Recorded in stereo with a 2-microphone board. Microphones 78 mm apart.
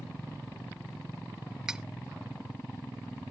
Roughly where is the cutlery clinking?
Centre.